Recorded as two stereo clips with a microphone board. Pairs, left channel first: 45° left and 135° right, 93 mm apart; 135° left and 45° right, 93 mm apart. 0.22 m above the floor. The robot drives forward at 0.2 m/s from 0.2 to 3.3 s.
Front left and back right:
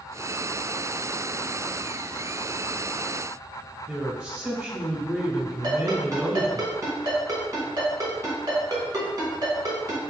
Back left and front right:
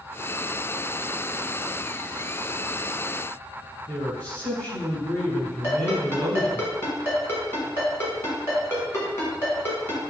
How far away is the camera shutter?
I don't hear a camera shutter.